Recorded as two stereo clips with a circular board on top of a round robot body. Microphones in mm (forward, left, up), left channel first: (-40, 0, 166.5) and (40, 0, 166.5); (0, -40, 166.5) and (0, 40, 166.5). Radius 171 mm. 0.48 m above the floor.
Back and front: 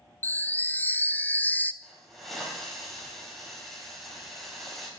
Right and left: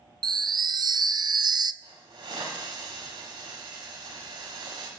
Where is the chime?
115° left, 0.6 m.